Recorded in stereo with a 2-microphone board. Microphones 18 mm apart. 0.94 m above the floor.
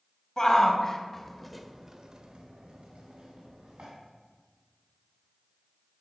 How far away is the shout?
About 1.5 m.